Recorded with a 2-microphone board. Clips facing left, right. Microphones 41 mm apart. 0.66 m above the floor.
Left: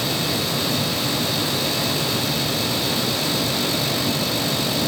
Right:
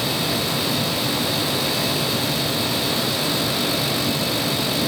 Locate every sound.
Only background noise.